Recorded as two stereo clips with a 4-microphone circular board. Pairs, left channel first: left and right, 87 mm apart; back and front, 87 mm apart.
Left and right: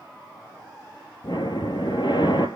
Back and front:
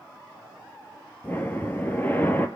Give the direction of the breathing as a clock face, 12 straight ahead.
8 o'clock.